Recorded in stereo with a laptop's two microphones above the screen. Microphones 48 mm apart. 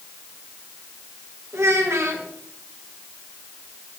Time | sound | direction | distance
1.5 | a child speaking | 70° right (ahead or behind) | 1.2 m